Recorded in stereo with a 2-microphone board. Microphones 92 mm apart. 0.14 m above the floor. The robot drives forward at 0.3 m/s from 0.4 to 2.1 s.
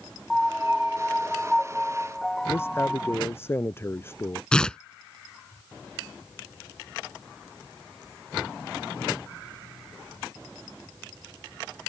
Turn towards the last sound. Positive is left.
turn(degrees=10)  # may be behind; listen again after turning